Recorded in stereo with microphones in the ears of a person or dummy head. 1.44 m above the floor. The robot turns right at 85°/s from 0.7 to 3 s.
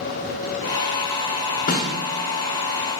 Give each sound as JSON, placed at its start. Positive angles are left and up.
{"t": 1.7, "sound": "a snare drum", "side_deg": 40, "distance_m": 0.6}